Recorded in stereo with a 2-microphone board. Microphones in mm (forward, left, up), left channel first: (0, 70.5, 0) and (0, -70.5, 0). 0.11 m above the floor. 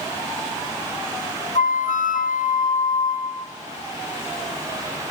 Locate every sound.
1.6 s a flute: 80° left, 1.0 m